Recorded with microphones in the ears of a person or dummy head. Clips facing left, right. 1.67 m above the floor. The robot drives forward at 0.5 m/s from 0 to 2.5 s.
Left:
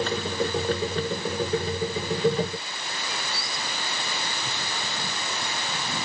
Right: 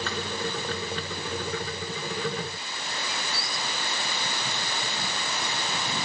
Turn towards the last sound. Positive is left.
No sound to turn to.